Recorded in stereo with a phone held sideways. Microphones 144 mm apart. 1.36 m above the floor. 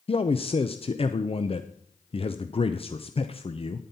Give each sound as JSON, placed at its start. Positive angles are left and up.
{"t": 0.1, "sound": "a man speaking", "side_deg": 40, "distance_m": 0.5}